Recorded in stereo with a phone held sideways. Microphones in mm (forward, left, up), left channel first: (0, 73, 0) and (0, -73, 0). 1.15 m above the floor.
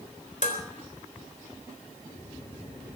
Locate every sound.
0.4 s dishes clattering: 60° left (ahead or behind), 3.5 m